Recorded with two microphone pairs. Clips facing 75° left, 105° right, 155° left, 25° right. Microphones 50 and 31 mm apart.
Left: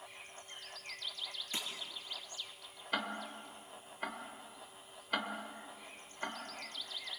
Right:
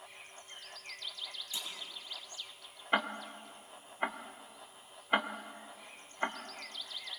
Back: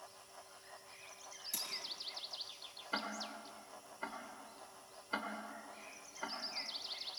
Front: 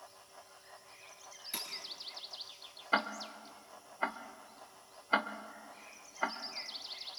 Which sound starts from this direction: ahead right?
Ticking, at 2.9 s.